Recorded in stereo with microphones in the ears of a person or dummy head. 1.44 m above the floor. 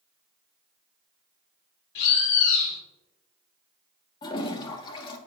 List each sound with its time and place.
1.9 s a bird: 60° left (ahead or behind), 1.6 m
4.2 s a toilet flushing: 30° left (ahead or behind), 1.2 m